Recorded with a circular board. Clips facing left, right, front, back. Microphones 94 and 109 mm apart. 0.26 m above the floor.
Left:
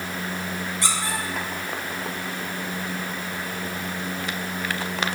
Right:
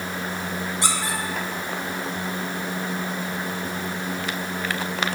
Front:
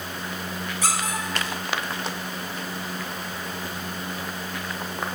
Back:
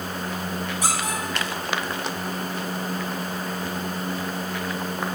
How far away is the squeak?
About 1.1 m.